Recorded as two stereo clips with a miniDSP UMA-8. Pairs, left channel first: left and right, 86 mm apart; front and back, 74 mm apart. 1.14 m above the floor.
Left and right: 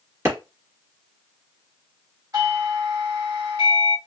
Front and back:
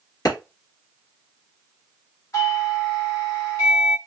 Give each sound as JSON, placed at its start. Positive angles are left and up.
{"t": 0.2, "sound": "a clap", "azimuth_deg": -35, "distance_m": 2.5}
{"t": 2.3, "sound": "a doorbell", "azimuth_deg": -50, "distance_m": 3.0}